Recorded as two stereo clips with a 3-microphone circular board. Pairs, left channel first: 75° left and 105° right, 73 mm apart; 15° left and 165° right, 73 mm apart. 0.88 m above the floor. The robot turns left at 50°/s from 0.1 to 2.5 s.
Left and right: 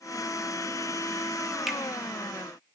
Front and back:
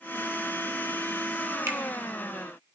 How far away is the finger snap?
About 0.6 m.